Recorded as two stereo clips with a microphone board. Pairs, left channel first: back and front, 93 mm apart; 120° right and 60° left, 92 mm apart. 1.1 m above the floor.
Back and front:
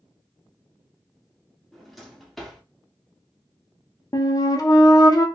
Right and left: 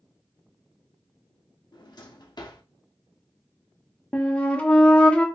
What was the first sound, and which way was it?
A drawer, 90° right.